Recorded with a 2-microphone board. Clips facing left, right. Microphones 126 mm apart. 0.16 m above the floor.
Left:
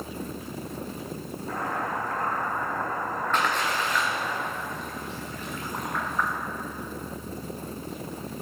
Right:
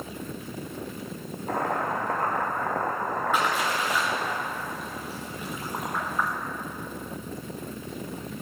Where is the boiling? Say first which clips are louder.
Right 3 dB; 60° right (ahead or behind), 3 m.